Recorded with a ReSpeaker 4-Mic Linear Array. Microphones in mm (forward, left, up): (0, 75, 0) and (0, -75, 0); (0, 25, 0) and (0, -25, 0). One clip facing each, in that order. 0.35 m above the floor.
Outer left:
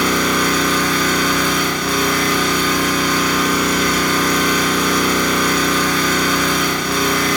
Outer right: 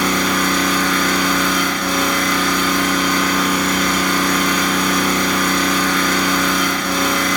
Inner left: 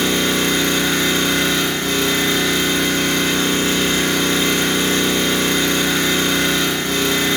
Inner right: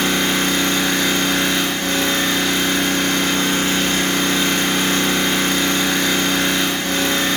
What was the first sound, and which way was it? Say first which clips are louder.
An engine running: outer left 1 dB, even; 55° right (ahead or behind).